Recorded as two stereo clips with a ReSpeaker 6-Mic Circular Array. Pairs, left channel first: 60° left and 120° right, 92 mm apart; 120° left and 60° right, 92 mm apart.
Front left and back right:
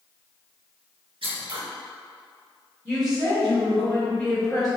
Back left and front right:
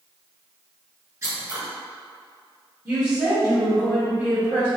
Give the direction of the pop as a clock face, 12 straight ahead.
No pop in this recording.